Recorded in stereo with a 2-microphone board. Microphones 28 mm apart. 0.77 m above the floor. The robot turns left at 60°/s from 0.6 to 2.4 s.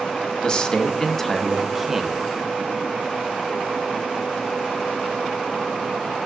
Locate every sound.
0.4 s a man speaking: 65° left, 1.0 m; by 2.2 s 35° right, 1.0 m